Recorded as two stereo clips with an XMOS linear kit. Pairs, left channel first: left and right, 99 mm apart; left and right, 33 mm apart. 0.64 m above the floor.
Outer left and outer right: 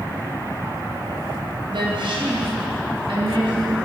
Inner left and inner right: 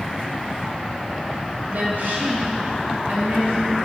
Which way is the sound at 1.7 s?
60° right (ahead or behind).